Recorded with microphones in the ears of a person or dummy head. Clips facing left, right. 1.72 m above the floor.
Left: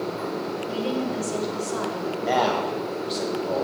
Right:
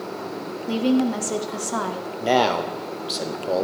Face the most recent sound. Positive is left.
turn(degrees=-50)  # may be behind; listen again after turning